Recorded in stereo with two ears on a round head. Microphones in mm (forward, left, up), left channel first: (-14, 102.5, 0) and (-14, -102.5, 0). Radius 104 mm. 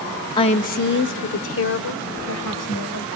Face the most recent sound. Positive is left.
turn(degrees=75)  # may be behind; listen again after turning